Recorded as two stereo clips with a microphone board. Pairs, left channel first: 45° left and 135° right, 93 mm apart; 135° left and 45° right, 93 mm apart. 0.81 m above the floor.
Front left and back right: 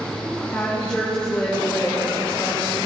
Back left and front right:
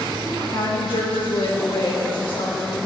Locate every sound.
0.5 s a woman speaking: 125° left, 3 m